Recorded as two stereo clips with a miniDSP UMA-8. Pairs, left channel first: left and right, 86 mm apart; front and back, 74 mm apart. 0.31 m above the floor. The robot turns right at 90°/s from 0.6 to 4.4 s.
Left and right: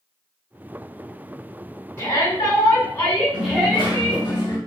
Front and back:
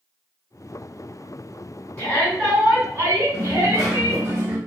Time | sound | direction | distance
2.0 | a shout | 50° left | 1.8 m
3.3 | a dropped coin | 45° left | 1.3 m